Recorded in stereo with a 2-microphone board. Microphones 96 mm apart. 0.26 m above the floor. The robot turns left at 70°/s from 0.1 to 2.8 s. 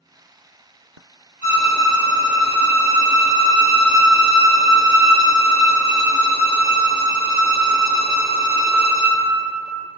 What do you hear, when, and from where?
1.4 s a violin: 20° right, 1.7 m; by 9.2 s 115° right, 1.7 m